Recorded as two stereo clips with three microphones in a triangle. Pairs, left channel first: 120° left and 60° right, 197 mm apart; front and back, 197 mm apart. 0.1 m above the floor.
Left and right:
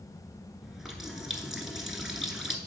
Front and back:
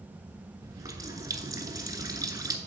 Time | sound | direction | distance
0.6 | a running tap | 145° right | 0.8 m